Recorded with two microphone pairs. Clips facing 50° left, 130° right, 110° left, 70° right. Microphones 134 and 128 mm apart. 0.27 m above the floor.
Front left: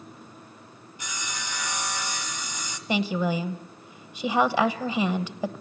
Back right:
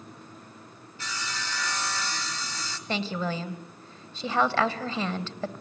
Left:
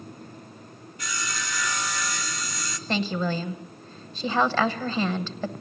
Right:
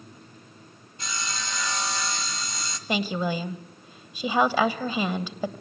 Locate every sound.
1.0 s sawing: 20° right, 1.4 m
2.9 s a woman speaking: 10° right, 1.1 m